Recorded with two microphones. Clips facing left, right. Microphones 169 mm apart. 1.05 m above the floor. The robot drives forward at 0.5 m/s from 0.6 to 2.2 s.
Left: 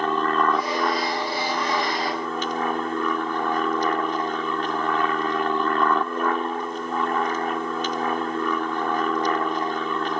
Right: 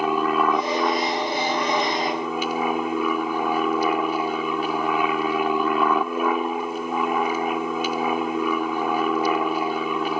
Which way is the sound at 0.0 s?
10° right (ahead or behind).